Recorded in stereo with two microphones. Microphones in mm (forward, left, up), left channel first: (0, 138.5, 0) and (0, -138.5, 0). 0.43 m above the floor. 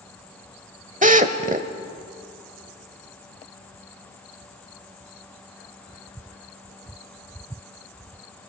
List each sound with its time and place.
1.0 s a drill: 30° right (ahead or behind), 1.2 m